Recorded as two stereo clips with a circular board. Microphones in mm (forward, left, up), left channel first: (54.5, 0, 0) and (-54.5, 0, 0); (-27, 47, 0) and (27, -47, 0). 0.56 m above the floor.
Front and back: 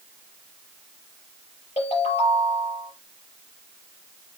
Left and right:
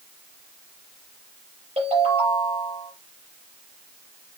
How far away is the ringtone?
About 5 m.